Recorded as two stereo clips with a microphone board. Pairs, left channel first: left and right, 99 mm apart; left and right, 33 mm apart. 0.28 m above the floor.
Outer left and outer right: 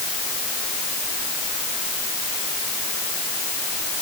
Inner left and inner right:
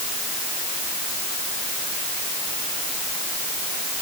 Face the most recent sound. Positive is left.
No sound to turn to.